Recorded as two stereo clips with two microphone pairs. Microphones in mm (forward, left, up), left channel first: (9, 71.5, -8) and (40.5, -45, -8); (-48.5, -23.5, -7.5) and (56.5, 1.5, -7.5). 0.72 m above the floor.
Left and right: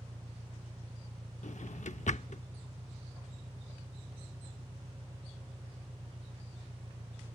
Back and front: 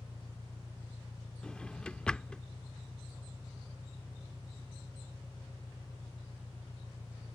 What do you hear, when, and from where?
0.0 s an engine running: 110° right
1.4 s a drawer: 115° left